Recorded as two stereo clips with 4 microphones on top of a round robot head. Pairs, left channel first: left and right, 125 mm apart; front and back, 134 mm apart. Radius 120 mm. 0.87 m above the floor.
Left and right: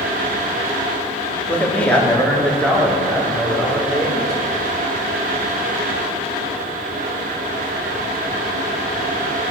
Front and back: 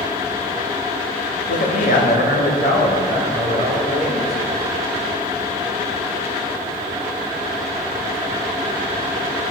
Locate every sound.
1.5 s a man speaking: 10° left, 2.5 m; by 4.5 s 5° left, 4.5 m